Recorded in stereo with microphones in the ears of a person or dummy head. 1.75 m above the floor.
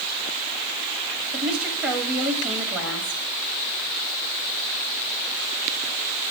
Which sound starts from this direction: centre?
A woman speaking, at 1.3 s.